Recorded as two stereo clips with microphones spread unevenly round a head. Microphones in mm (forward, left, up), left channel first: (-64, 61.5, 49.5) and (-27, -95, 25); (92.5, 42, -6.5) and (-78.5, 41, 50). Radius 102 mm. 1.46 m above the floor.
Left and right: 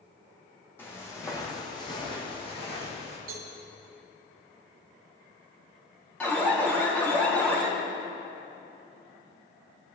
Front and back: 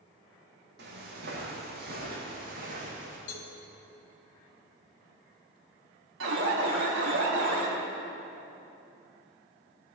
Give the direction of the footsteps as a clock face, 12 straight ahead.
6 o'clock.